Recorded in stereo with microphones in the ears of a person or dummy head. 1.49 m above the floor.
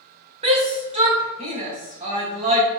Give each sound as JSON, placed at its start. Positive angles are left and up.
{"t": 0.4, "sound": "a shout", "side_deg": -30, "distance_m": 1.3}